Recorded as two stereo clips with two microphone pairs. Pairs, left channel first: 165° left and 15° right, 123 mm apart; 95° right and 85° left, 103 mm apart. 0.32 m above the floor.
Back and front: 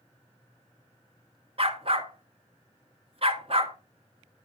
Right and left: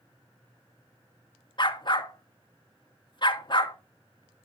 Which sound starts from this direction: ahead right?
A dog barking, at 1.6 s.